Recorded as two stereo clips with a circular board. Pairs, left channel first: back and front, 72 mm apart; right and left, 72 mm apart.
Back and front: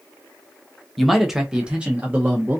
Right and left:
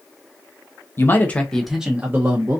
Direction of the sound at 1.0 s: 90° right.